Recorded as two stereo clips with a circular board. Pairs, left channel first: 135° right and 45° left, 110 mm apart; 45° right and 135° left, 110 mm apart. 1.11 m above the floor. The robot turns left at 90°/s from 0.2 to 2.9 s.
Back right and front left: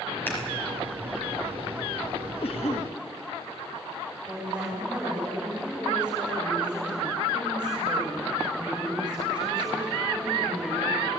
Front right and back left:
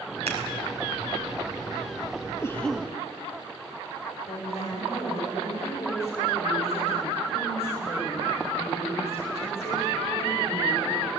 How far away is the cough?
About 2 m.